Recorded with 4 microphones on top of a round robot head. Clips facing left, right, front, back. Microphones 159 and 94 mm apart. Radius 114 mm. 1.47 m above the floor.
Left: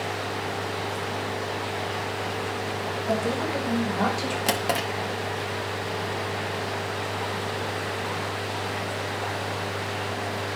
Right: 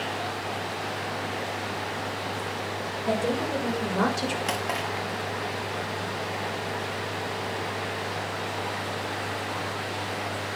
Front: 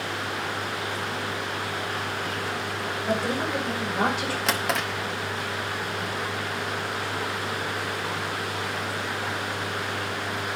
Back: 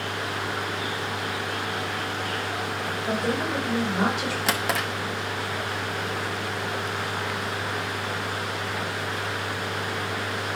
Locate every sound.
3.1 s a woman speaking: 100° right, 6 m; by 4.4 s 85° right, 5 m
4.5 s a drawer: 95° left, 0.9 m